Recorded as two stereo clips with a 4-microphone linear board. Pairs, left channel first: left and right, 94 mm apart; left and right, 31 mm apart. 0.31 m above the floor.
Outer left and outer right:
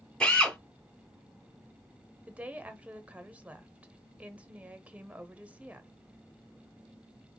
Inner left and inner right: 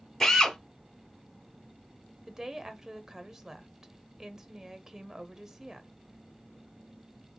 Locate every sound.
0.2 s a drill: 10° left (ahead or behind), 2 m
2.3 s a woman speaking: 15° right (ahead or behind), 0.9 m